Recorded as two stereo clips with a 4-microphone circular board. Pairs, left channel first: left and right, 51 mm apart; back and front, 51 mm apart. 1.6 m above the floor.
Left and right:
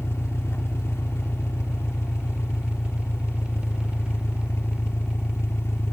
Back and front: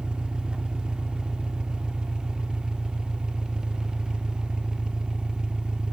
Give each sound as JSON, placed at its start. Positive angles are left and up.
{"t": 0.0, "sound": "an engine running", "azimuth_deg": 70}